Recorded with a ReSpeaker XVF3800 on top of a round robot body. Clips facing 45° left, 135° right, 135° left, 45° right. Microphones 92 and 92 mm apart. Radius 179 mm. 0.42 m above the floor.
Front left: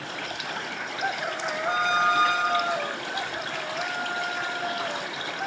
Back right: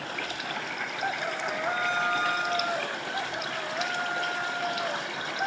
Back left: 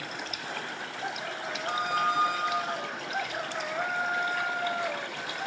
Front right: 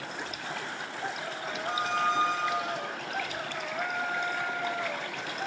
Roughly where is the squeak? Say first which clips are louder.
Front left 6 dB, even; ahead left.